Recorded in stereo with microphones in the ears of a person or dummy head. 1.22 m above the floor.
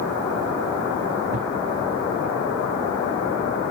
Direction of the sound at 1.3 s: 45° right (ahead or behind).